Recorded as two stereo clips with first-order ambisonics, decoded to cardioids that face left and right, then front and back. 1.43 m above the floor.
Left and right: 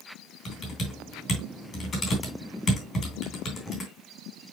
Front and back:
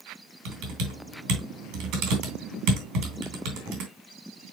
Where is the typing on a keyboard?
155° left, 3 m.